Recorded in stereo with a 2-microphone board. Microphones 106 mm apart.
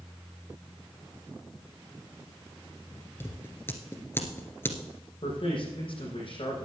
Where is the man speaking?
60° left (ahead or behind), 6 m.